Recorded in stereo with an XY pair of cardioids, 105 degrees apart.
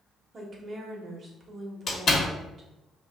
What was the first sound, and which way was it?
A woman speaking, 40° right.